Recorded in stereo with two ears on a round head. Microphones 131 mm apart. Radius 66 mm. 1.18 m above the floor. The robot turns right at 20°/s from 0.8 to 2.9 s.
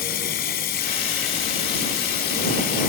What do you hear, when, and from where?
0.0 s running water: 70° left; by 2.9 s 115° left